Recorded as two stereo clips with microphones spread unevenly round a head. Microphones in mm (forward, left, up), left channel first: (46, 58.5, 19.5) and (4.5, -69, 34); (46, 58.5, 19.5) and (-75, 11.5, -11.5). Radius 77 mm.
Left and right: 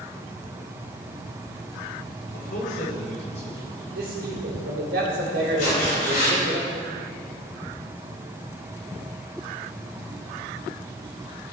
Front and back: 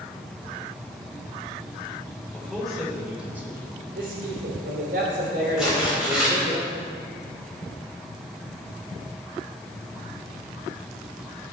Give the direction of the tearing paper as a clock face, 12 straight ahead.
8 o'clock.